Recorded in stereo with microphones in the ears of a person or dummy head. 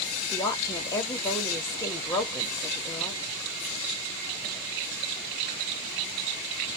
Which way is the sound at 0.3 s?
15° left (ahead or behind).